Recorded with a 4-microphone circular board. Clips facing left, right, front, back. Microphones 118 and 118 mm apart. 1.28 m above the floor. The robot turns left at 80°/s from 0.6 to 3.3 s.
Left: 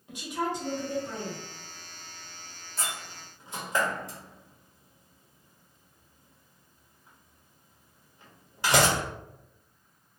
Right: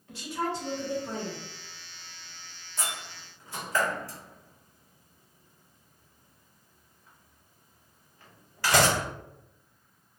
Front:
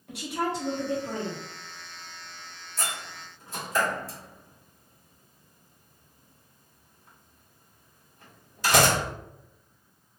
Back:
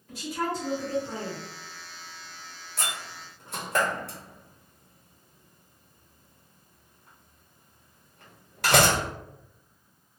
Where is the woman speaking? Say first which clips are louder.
Left 1 dB, front 1 dB; 15° left, 1.0 m; by 1.4 s 50° right, 1.0 m.